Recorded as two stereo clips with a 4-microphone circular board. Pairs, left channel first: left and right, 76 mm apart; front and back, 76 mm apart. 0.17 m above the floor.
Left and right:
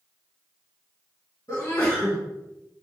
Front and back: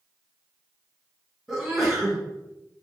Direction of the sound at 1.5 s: 95° left.